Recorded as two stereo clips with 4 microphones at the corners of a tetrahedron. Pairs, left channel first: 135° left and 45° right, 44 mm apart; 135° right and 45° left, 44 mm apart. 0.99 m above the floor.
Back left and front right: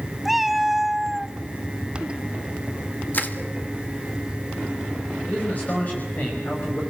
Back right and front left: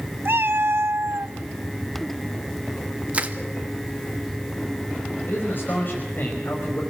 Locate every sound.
0.2 s a cat meowing: 40° left, 0.6 m
3.1 s crushing: 95° left, 1.9 m
5.3 s a man speaking: 175° right, 5.5 m